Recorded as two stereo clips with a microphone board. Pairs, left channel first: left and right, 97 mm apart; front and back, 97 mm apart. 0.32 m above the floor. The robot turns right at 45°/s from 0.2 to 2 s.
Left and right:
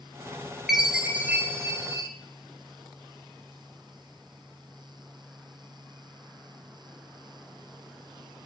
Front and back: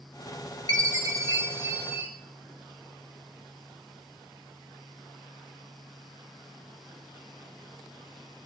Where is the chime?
175° right, 1.3 m; by 2.1 s 115° right, 1.3 m.